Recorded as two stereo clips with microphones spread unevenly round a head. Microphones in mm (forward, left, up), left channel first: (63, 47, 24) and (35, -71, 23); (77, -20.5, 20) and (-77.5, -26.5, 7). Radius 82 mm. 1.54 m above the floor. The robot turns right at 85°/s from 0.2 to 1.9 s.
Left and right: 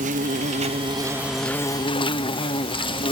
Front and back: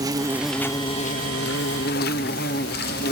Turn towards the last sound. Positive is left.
turn(degrees=30)